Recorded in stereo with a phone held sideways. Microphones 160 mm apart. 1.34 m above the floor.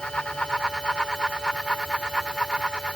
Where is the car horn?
I don't hear a car horn.